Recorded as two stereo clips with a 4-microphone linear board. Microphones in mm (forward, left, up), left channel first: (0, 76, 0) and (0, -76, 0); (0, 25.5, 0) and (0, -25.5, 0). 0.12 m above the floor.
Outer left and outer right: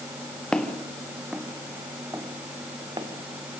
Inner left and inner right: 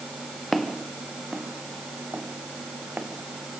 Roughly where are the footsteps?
Centre.